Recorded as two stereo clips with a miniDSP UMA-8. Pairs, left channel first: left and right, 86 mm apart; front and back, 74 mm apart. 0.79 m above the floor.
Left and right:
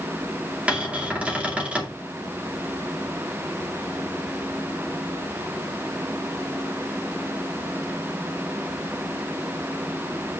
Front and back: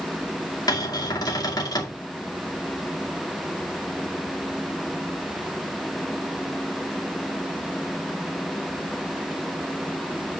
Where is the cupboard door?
20° right, 2 m.